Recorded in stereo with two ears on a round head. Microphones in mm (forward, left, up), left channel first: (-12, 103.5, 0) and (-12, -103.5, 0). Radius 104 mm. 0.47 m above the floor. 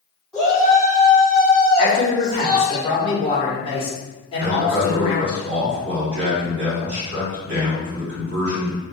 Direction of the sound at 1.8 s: 25° left (ahead or behind).